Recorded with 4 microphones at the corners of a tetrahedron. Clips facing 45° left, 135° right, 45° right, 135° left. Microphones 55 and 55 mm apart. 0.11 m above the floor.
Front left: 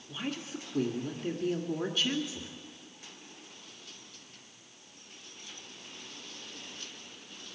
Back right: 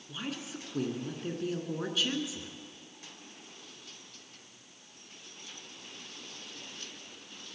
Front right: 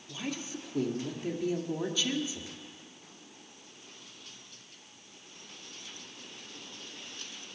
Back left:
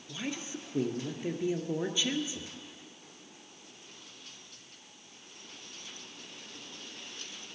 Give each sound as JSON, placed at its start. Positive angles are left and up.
{"t": 0.1, "sound": "a woman speaking", "azimuth_deg": 145, "distance_m": 1.7}